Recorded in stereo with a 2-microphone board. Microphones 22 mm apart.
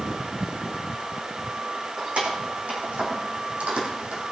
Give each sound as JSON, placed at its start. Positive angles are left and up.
{"t": 2.0, "sound": "keys jangling", "side_deg": -80, "distance_m": 5.0}